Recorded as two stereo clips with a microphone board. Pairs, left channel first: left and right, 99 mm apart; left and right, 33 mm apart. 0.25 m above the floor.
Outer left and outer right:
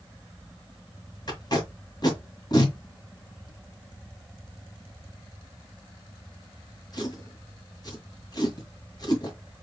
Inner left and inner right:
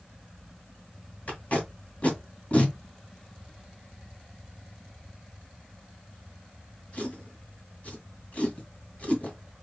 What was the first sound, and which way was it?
Tape being pulled, 45° left (ahead or behind).